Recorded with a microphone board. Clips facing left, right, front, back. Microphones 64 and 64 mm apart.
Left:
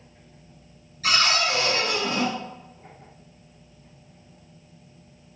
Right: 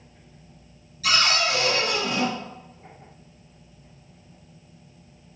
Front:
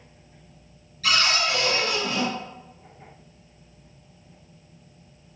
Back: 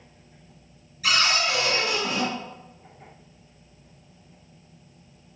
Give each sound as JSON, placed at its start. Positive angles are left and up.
{"t": 1.0, "sound": "a cupboard door", "azimuth_deg": 110, "distance_m": 1.5}